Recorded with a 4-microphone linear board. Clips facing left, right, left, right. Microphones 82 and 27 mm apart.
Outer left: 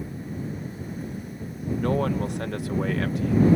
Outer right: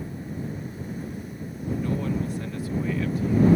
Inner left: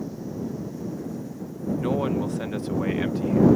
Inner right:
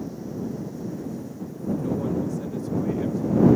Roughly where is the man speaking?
Left.